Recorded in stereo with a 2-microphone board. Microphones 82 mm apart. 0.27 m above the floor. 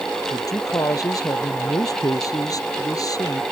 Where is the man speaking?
40° left (ahead or behind).